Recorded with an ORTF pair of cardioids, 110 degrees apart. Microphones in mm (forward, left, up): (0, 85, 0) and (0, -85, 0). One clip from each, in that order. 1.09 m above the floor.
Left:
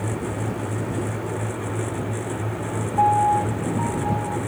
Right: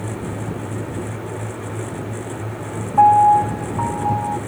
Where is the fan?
10° left.